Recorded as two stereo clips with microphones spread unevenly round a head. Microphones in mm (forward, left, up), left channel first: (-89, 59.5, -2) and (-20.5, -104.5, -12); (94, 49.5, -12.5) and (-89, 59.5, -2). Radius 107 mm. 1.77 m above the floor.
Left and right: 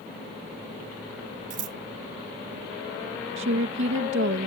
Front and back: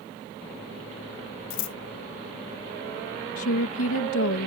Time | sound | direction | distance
1.5 | scissors | 10° right | ?
3.4 | a woman speaking | 30° right | ?